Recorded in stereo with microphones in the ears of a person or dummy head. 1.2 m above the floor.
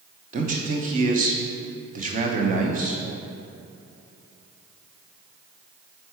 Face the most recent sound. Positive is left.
turn(degrees=-35)  # may be behind; listen again after turning